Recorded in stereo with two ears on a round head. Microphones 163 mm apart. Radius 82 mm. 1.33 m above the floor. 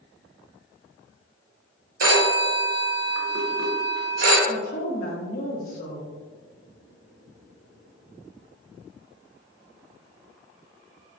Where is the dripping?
No dripping in this recording.